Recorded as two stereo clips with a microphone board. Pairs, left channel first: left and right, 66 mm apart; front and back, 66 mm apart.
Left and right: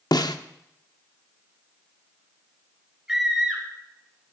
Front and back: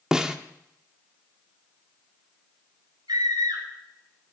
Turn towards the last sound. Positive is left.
turn(degrees=-175)